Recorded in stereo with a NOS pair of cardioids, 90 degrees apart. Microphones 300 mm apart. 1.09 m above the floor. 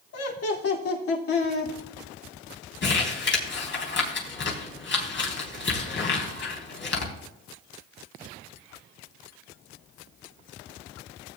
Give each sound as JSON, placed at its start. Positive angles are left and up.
{"t": 0.1, "sound": "laughter", "azimuth_deg": 55, "distance_m": 3.0}
{"t": 2.8, "sound": "crumpling", "azimuth_deg": 40, "distance_m": 4.0}